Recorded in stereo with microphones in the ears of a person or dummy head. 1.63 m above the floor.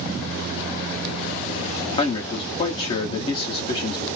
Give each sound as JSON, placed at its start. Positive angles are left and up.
{"t": 2.0, "sound": "a man speaking", "side_deg": 25, "distance_m": 0.9}